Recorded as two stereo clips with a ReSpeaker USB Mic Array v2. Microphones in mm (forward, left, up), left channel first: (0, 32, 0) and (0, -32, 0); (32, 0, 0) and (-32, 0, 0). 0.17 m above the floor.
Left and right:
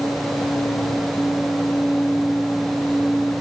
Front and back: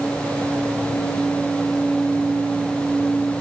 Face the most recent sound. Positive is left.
No sound to turn to.